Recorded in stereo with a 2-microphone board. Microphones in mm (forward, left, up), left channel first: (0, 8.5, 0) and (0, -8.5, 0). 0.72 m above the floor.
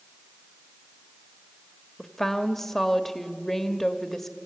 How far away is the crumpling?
No crumpling in this recording.